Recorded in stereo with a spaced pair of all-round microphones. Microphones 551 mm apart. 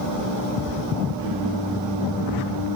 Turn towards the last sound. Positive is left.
turn(degrees=70)  # may be behind; listen again after turning